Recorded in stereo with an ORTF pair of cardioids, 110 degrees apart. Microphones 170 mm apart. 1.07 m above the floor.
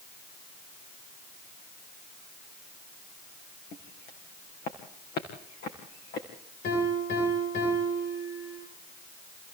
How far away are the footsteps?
About 4.5 m.